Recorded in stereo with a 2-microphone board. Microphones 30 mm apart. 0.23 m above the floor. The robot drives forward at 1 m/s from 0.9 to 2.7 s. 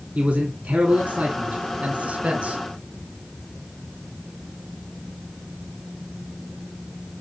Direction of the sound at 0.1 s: 60° right (ahead or behind).